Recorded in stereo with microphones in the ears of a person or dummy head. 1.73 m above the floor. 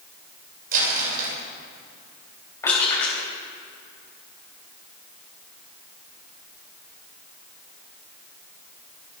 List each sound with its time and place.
0.7 s crumpling: 55° right (ahead or behind), 6 m
2.6 s crushing: 20° left (ahead or behind), 6 m